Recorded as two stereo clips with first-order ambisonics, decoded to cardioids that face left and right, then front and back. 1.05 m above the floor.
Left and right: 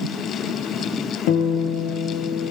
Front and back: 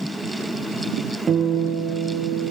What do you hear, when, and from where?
1.3 s a guitar: 110° left, 5.5 m